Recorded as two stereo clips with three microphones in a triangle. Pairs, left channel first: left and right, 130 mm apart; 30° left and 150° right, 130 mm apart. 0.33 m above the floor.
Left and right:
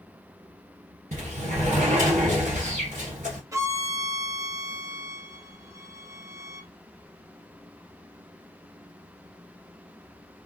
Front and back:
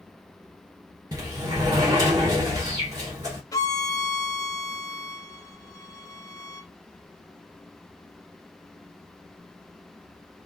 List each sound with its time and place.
1.1 s a sliding door: 90° right, 1.7 m
3.5 s a violin: 30° right, 0.5 m